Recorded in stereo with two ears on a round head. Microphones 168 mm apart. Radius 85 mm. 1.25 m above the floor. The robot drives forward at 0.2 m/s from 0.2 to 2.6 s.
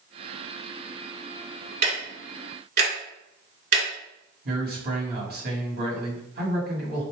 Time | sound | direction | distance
1.8 | ticking | 50° right (ahead or behind) | 1.5 m
4.5 | a man speaking | 55° right (ahead or behind) | 1.6 m